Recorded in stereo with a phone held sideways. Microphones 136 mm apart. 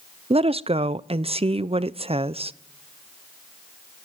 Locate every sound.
0.3 s a woman speaking: 45° right (ahead or behind), 0.5 m